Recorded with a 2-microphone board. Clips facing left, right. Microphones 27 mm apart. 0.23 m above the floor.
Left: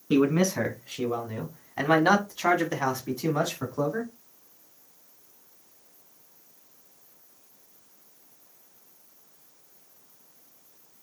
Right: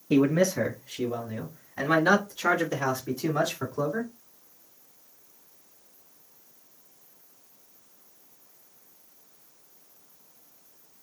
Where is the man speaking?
55° left (ahead or behind), 2 m; by 4.1 s 10° left (ahead or behind), 2 m.